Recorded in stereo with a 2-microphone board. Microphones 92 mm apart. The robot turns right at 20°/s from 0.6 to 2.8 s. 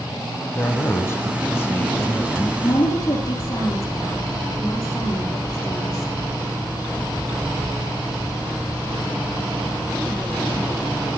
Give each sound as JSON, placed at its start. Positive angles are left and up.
{"t": 0.6, "sound": "a man speaking", "azimuth_deg": 115, "distance_m": 1.1}
{"t": 2.6, "sound": "a woman speaking", "side_deg": 60, "distance_m": 5.0}